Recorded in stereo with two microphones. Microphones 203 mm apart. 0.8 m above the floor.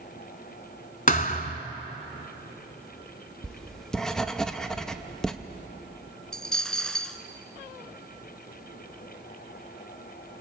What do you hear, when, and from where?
1.1 s a thud: 45° left (ahead or behind), 1.3 m
3.4 s writing: 5° left (ahead or behind), 0.8 m
6.3 s a dropped coin: 5° left (ahead or behind), 1.1 m